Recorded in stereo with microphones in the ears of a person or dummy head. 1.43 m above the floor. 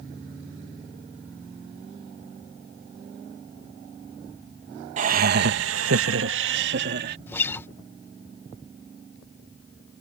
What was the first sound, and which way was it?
Laughter, 45° right (ahead or behind).